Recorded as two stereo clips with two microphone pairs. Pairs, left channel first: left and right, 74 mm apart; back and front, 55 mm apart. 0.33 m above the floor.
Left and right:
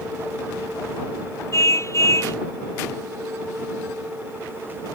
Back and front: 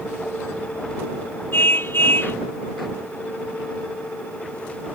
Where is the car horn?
130° left.